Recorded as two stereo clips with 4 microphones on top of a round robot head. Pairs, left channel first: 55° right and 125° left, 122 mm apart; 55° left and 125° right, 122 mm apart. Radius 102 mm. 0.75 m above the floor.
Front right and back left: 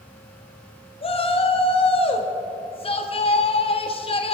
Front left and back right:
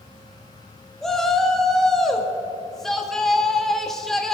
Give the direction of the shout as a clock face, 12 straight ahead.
1 o'clock.